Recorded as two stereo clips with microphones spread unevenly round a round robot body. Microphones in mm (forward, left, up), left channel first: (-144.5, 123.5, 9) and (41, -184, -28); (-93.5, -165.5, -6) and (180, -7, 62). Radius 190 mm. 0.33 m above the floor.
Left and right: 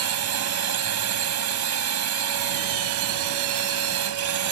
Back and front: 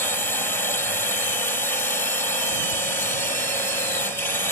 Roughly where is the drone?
Right.